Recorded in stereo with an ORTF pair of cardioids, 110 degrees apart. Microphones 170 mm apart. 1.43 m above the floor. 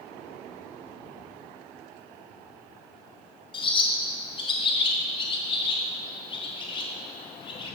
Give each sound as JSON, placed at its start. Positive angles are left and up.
{"t": 3.5, "sound": "a bird", "azimuth_deg": 25, "distance_m": 1.1}